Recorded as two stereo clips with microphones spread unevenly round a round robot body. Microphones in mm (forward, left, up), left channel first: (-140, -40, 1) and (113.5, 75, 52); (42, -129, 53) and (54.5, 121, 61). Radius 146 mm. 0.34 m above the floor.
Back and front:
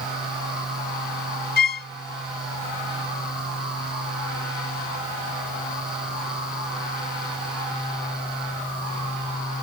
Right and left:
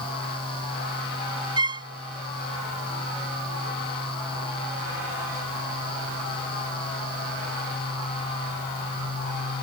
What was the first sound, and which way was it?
A violin, 160° left.